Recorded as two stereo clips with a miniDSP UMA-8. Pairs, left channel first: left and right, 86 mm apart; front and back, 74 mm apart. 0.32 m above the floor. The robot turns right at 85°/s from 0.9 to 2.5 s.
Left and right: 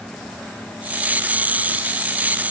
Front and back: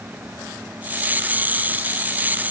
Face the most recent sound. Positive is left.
No sound to turn to.